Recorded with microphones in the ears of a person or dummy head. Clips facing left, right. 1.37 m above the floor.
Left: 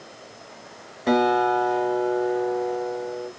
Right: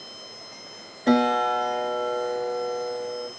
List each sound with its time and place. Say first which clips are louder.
1.1 s a guitar: left 1 dB; 5° right (ahead or behind), 1.7 m